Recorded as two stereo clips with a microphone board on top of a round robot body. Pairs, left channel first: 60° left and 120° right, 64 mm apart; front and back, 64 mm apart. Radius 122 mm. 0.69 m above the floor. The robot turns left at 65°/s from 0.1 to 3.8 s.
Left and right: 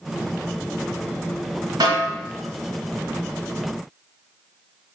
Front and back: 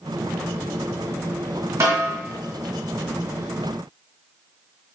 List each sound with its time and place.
1.8 s a snare drum: 135° right, 1.4 m; by 2.1 s 155° right, 1.4 m